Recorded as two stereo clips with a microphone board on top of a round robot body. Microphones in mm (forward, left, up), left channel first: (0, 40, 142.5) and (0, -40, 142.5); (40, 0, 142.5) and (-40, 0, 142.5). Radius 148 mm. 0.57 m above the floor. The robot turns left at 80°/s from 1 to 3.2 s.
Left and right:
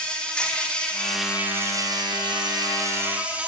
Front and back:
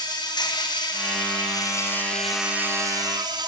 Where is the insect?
15° left, 4.5 m; by 3.5 s 160° right, 4.5 m.